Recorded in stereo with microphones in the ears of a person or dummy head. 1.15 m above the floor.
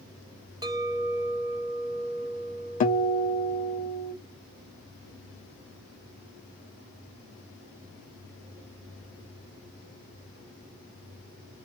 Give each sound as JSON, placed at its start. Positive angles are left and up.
{"t": 0.6, "sound": "a clink", "side_deg": -20, "distance_m": 0.7}
{"t": 2.8, "sound": "a guitar", "side_deg": 40, "distance_m": 0.7}